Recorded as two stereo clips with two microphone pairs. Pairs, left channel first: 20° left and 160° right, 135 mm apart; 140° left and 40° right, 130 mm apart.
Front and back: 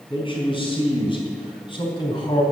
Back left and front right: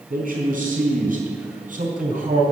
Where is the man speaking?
30° right, 4.5 m; by 2.4 s 35° right, 3 m.